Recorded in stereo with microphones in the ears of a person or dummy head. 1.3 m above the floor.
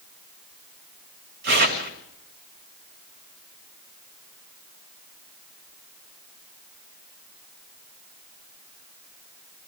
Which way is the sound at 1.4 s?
65° right (ahead or behind).